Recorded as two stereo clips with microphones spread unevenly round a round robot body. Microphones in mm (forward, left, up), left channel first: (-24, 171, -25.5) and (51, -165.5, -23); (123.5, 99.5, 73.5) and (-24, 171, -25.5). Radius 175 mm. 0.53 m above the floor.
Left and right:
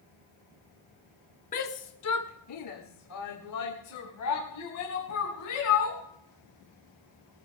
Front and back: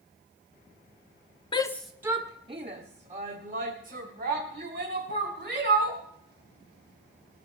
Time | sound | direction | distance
1.5 | a shout | 80° left | 0.6 m